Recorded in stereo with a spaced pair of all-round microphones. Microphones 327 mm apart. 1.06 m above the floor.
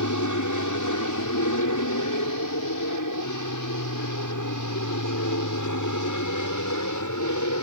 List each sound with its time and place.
0.0 s an aircraft: 65° left (ahead or behind); by 7.6 s 60° left (ahead or behind)